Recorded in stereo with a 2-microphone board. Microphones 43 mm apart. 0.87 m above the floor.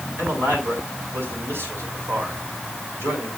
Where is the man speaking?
70° right (ahead or behind), 6.5 m.